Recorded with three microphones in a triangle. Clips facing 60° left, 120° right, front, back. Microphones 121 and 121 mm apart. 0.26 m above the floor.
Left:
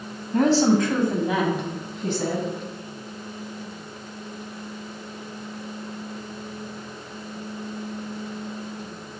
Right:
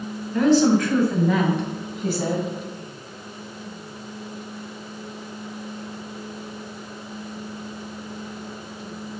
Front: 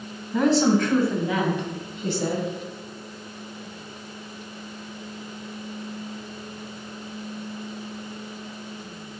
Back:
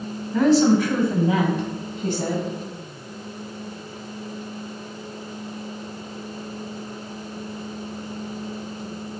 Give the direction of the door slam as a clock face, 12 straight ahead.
No door slam in this recording.